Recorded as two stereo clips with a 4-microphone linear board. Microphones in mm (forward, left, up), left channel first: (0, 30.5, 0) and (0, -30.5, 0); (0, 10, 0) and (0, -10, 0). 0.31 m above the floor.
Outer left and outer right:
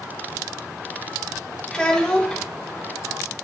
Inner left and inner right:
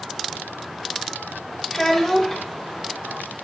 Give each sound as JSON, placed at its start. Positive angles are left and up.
{"t": 1.7, "sound": "a child speaking", "side_deg": 10, "distance_m": 0.5}